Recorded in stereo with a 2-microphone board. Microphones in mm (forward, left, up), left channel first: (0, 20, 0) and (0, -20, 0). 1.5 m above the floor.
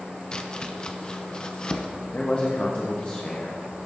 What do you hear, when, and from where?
0.3 s chopping: 20° left (ahead or behind), 0.5 m
2.1 s a man speaking: 35° left (ahead or behind), 0.8 m